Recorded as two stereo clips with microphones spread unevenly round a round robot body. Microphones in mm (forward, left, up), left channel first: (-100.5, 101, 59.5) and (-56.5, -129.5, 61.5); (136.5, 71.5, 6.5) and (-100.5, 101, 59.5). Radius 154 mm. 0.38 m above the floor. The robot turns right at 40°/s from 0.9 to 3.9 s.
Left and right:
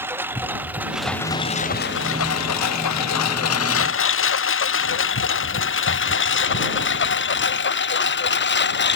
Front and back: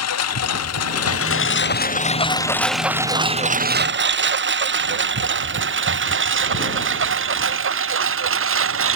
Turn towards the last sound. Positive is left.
turn(degrees=145)